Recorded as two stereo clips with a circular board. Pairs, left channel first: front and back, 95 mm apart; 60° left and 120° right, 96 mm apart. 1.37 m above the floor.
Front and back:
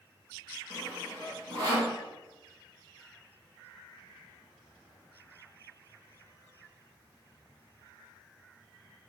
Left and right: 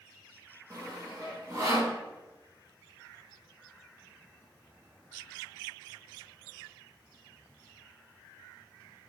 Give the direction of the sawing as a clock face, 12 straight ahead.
6 o'clock.